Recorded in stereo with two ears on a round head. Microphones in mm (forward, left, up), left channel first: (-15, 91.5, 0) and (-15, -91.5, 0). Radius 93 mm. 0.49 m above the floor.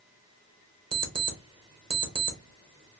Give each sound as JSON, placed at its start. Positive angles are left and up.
{"t": 0.9, "sound": "an alarm clock", "side_deg": -25, "distance_m": 0.7}